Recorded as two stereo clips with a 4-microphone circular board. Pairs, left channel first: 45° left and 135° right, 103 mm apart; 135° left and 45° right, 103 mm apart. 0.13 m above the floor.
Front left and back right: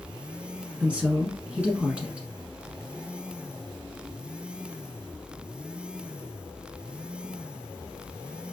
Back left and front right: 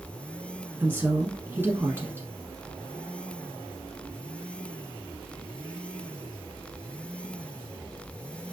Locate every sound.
0.8 s a woman speaking: 70° right, 1.1 m